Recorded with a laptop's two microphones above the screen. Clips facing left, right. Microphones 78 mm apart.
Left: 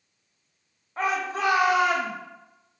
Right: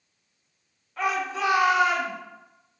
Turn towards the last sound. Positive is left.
turn(degrees=55)  # may be behind; listen again after turning